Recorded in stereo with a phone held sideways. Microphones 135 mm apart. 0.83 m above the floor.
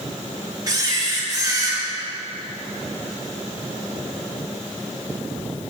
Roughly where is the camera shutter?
Right.